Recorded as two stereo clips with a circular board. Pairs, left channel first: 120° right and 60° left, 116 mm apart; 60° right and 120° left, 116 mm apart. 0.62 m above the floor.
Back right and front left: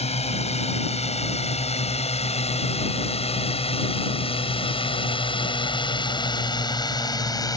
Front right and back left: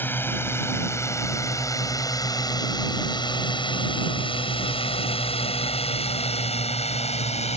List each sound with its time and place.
0.0 s a drone: 130° right; by 7.6 s 65° right